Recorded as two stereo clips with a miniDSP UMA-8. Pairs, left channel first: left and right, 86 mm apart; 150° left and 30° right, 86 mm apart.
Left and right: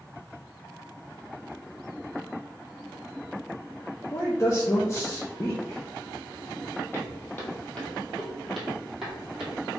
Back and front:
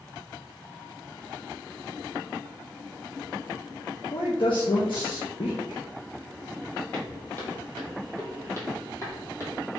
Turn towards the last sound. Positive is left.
turn(degrees=-165)